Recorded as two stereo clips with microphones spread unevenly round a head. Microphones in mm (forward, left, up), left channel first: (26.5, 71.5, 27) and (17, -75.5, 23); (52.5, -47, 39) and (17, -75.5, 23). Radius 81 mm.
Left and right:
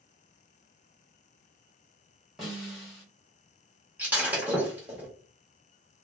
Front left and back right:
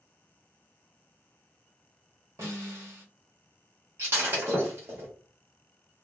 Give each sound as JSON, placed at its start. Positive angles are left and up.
{"t": 2.4, "sound": "a snare drum", "azimuth_deg": 175, "distance_m": 1.1}
{"t": 4.0, "sound": "breaking glass", "azimuth_deg": -170, "distance_m": 1.0}